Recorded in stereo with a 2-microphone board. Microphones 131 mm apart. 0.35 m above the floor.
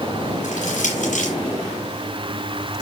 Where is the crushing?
80° left, 6 m.